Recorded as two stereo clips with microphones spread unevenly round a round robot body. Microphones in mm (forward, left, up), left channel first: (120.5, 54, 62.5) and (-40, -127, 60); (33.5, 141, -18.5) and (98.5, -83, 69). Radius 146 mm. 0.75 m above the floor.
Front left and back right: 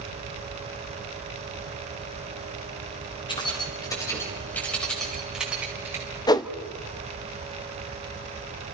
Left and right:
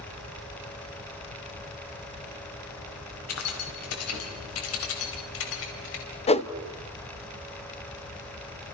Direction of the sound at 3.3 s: 125° left.